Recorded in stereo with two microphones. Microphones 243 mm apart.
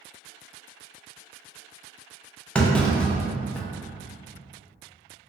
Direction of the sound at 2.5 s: 5° left (ahead or behind).